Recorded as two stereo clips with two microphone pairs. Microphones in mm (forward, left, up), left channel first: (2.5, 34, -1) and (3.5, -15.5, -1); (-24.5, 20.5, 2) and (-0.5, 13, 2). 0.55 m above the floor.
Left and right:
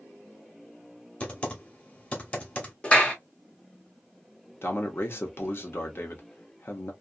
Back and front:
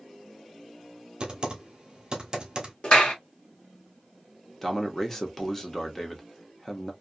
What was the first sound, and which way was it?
Typing on a keyboard, 35° left.